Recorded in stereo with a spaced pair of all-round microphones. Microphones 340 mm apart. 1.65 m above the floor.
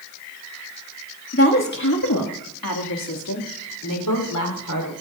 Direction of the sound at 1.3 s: 40° left (ahead or behind).